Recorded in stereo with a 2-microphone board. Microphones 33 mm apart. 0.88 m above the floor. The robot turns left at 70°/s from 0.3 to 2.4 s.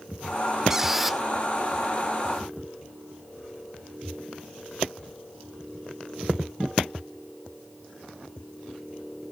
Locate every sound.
0.7 s a squeak: 15° right (ahead or behind), 0.5 m; by 1.2 s centre (ahead or behind), 0.5 m